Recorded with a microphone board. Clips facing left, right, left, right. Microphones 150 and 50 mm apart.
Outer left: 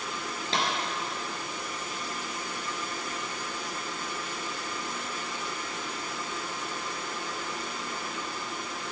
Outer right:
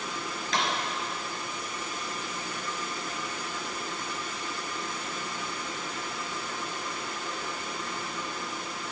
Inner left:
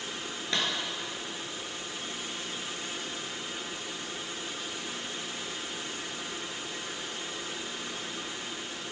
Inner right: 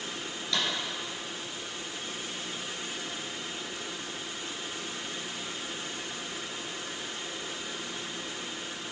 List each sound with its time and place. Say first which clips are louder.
0.5 s a clap: even, even; 30° left (ahead or behind), 2.5 m